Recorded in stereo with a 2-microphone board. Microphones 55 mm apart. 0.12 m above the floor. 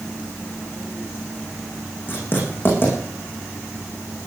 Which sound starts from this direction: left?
Writing, at 2.1 s.